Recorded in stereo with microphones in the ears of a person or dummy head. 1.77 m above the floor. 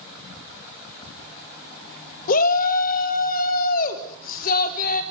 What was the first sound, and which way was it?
A shout, 50° left (ahead or behind).